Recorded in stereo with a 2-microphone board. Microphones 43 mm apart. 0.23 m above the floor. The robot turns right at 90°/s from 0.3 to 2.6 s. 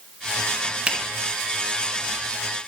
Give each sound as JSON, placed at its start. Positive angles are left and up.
{"t": 0.9, "sound": "a finger snap", "side_deg": -20, "distance_m": 1.3}